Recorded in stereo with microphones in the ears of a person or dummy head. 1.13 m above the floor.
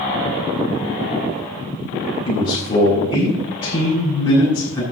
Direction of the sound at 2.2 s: 35° left (ahead or behind).